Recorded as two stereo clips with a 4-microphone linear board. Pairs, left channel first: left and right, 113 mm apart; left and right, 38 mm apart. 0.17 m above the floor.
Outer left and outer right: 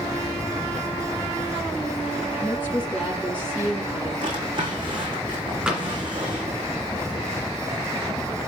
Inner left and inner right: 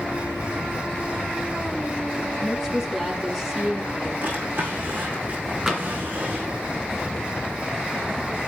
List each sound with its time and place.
2.4 s a woman speaking: centre (ahead or behind), 4 m
4.2 s a drawer: 45° right (ahead or behind), 6.5 m
5.7 s tapping: 5° right (ahead or behind), 2.5 m